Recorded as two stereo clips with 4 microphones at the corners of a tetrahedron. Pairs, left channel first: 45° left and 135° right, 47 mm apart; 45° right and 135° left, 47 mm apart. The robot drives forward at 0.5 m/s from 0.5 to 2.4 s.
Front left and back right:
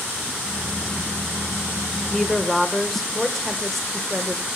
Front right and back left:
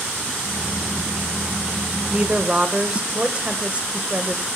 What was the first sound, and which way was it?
A woman speaking, 105° left.